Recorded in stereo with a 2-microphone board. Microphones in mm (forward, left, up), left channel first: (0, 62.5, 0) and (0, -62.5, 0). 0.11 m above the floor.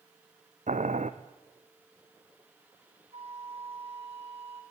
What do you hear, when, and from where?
0.7 s boiling: 80° right, 1.4 m
3.1 s a flute: 50° right (ahead or behind), 2.5 m